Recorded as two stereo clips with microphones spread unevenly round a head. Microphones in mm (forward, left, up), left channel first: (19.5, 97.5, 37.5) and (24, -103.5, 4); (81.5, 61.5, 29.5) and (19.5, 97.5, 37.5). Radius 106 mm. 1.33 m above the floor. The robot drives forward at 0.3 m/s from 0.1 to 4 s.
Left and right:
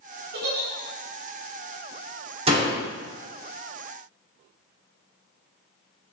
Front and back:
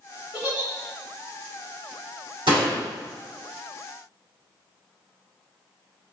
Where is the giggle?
130° right, 2 m; by 0.7 s 135° right, 2.5 m.